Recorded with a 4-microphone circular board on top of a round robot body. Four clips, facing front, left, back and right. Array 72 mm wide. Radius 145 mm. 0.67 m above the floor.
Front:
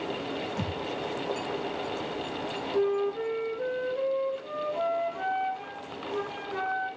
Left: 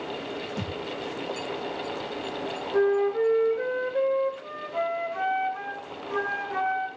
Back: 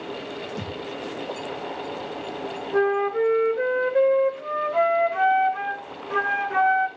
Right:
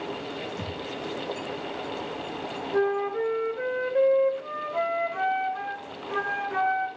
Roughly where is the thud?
Behind left.